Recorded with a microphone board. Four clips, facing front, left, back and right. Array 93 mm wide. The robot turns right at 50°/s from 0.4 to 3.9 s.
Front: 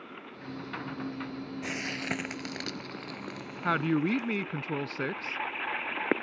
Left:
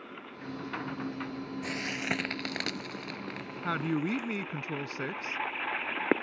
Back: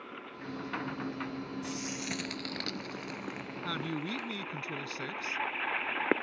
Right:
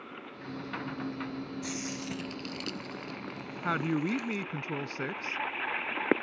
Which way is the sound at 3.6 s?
15° right.